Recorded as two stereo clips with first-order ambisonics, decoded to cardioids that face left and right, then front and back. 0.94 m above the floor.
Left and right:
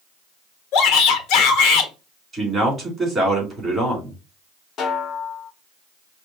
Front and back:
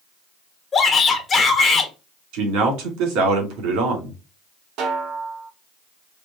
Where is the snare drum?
145° left, 0.9 m.